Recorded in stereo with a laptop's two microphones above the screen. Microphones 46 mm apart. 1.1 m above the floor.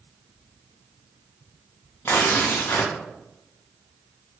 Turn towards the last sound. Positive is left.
turn(degrees=55)  # may be behind; listen again after turning